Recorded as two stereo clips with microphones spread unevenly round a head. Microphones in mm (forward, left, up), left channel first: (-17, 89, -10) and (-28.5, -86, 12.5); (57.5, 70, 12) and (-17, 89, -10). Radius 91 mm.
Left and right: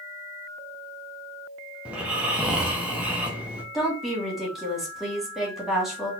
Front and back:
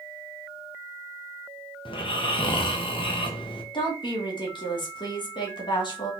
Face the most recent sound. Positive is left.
turn(degrees=-5)